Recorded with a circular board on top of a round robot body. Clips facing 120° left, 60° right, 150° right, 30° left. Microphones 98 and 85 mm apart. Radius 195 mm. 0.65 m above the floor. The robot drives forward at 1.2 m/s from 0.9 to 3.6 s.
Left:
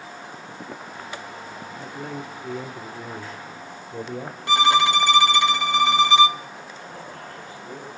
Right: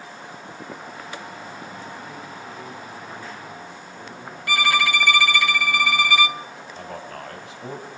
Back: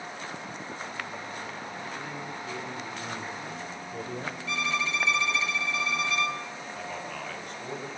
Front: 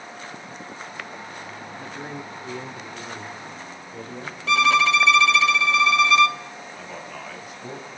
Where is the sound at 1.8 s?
80° left, 2.5 m; by 4.4 s 125° left, 3 m.